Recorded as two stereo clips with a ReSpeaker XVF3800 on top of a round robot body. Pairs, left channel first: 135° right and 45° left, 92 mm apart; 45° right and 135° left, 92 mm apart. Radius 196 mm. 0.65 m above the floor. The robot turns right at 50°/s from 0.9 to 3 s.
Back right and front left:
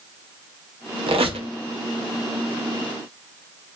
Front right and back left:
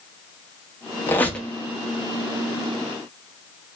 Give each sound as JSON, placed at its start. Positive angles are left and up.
{"t": 1.1, "sound": "a squeak", "azimuth_deg": 20, "distance_m": 0.6}